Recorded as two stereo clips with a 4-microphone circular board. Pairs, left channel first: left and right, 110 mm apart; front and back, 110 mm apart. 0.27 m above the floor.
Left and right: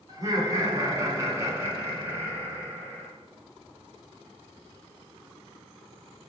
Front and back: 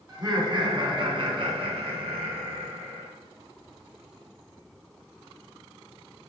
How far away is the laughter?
About 2 m.